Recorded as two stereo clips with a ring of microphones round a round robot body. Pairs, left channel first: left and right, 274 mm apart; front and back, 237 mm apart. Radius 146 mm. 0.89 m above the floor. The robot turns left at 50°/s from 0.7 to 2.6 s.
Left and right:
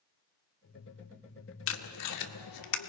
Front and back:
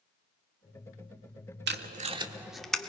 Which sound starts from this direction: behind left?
Tape being pulled, at 1.7 s.